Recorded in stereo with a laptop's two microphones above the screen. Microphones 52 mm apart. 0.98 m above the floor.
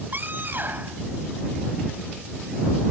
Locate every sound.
0.1 s a scream: 45° right (ahead or behind)